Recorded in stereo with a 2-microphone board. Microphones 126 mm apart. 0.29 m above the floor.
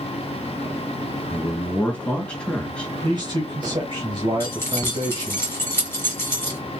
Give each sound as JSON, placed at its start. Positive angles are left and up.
{"t": 1.3, "sound": "a man speaking", "side_deg": 10, "distance_m": 2.5}
{"t": 3.0, "sound": "a man speaking", "side_deg": -40, "distance_m": 1.4}
{"t": 4.4, "sound": "keys jangling", "side_deg": 20, "distance_m": 1.5}